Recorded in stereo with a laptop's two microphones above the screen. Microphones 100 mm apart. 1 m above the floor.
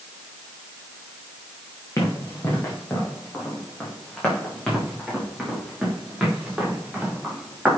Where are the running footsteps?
30° left (ahead or behind), 3 m; by 7.7 s 5° right (ahead or behind), 5 m.